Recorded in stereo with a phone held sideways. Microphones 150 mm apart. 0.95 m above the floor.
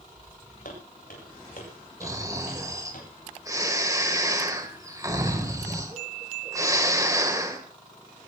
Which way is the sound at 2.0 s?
25° right (ahead or behind).